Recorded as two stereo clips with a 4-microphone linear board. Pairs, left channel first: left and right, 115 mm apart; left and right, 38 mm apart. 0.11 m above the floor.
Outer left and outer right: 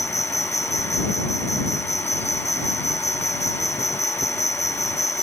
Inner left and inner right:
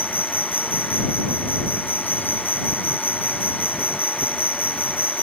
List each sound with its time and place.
0.0 s an insect: 75° left (ahead or behind)